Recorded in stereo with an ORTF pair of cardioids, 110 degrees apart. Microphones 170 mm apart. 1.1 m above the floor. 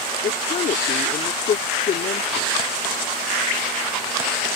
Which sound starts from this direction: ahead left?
A woman speaking, at 0.2 s.